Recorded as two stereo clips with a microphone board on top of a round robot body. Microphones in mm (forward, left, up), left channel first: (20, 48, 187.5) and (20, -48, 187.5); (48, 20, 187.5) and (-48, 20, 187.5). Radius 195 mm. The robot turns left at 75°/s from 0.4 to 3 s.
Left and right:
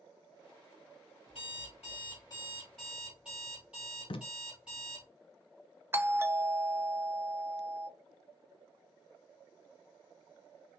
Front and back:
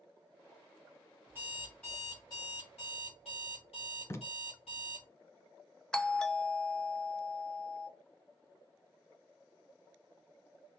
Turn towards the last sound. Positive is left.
turn(degrees=-70)